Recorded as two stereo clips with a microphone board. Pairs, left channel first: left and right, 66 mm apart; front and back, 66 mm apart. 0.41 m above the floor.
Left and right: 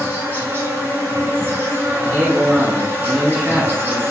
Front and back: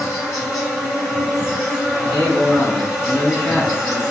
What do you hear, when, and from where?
0.0 s an insect: 90° right, 1.2 m
2.0 s a man speaking: 35° right, 1.5 m